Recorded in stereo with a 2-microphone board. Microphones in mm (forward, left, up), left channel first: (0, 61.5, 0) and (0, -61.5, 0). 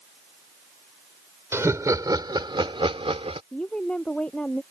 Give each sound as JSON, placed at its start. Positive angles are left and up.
{"t": 1.5, "sound": "laughter", "side_deg": -20}
{"t": 3.5, "sound": "a woman speaking", "side_deg": 5}